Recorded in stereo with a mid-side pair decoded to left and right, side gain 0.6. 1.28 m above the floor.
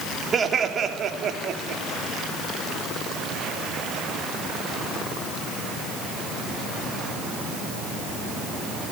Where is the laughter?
30° right, 3.5 m; by 1.8 s 60° right, 3.5 m.